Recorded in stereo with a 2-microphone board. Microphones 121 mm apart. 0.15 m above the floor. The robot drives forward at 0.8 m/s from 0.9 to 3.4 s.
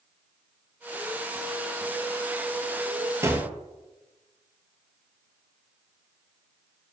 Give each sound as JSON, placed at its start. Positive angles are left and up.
{"t": 3.2, "sound": "a gunshot", "side_deg": -25, "distance_m": 0.8}